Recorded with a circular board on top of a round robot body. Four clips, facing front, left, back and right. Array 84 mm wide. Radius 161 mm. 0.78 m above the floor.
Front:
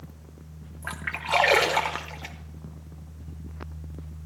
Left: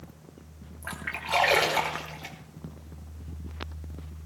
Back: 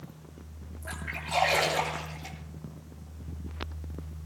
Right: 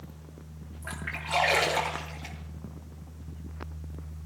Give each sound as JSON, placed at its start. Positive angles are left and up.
{"t": 0.8, "sound": "a splash", "azimuth_deg": 15, "distance_m": 1.1}